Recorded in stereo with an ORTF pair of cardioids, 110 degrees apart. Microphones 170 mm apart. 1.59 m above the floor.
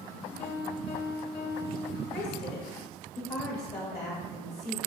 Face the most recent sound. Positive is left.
turn(degrees=35)